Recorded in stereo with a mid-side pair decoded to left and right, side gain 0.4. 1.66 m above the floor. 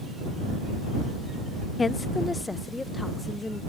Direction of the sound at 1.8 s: 40° left.